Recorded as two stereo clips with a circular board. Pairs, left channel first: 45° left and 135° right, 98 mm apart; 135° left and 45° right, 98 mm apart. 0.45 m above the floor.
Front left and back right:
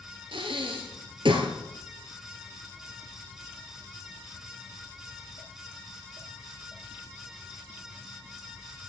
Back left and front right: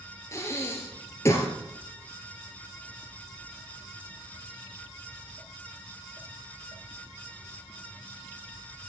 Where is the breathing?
165° right, 1.8 m.